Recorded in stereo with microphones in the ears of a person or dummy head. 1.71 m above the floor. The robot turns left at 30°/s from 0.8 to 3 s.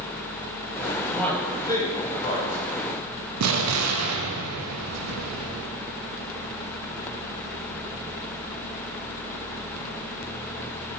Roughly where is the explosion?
Right.